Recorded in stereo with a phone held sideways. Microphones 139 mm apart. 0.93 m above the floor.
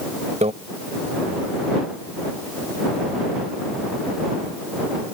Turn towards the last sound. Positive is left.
turn(degrees=-50)  # may be behind; listen again after turning